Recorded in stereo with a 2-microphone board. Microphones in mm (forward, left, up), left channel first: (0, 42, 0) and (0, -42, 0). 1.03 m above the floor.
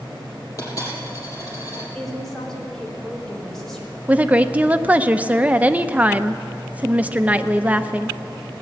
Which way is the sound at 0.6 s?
40° left (ahead or behind).